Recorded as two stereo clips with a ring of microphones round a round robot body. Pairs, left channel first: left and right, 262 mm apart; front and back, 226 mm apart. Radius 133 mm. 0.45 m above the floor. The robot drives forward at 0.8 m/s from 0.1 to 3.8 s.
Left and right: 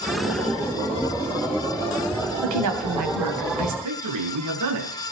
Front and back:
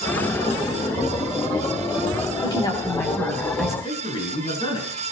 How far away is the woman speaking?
About 3.5 m.